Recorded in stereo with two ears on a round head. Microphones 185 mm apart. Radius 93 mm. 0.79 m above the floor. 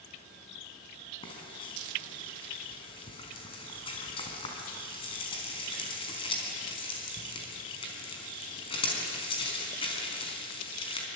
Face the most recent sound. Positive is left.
turn(degrees=25)  # may be behind; listen again after turning